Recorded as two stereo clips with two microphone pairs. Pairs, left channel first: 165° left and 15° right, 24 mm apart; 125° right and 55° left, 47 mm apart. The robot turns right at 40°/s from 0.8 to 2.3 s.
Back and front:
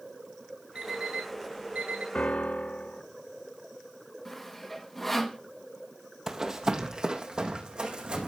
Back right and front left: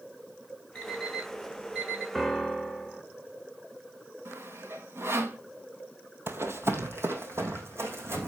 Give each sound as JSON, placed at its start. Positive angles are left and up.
{"t": 0.8, "sound": "an alarm clock", "azimuth_deg": -60, "distance_m": 3.5}
{"t": 2.1, "sound": "a piano", "azimuth_deg": 140, "distance_m": 1.2}
{"t": 4.2, "sound": "sawing", "azimuth_deg": 80, "distance_m": 2.0}
{"t": 6.3, "sound": "running footsteps", "azimuth_deg": 50, "distance_m": 1.9}